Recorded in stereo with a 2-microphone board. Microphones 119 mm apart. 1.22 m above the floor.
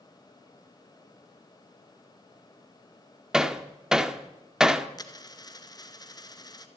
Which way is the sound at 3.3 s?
5° right (ahead or behind).